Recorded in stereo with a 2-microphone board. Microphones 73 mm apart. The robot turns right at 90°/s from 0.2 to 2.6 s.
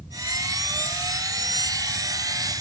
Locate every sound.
Only background noise.